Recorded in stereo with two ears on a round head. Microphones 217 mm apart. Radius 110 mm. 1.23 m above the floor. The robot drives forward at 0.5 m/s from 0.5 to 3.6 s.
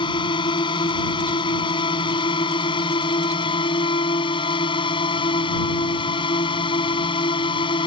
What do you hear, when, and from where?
0.0 s a drone: 20° left (ahead or behind)